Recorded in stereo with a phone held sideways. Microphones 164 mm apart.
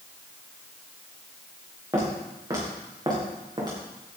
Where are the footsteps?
20° right (ahead or behind), 6 m; by 3.8 s 25° right (ahead or behind), 5 m.